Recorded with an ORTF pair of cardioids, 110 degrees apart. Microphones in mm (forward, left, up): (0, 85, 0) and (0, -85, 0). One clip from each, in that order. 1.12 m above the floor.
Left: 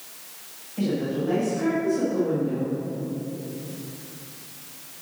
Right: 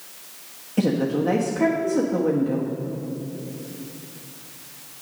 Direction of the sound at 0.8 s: 55° right.